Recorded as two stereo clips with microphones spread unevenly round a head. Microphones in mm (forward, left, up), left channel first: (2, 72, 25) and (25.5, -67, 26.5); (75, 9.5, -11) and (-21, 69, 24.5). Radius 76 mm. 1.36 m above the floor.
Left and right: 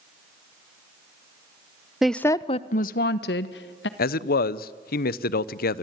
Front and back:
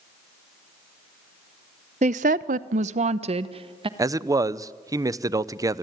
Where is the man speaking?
80° left, 0.7 m.